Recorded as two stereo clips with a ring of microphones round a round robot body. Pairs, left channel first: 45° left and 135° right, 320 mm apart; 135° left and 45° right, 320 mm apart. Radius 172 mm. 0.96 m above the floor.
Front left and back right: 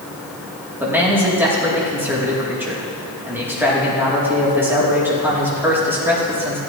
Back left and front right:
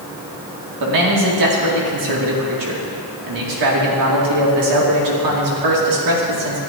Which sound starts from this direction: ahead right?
A man speaking, at 0.8 s.